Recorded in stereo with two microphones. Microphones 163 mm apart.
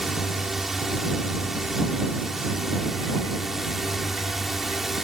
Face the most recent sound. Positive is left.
turn(degrees=0)  # may be behind; listen again after turning